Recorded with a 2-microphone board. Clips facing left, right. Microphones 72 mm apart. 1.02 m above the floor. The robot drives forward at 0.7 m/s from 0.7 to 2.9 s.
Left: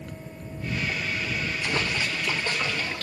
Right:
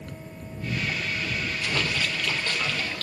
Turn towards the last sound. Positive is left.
turn(degrees=15)  # may be behind; listen again after turning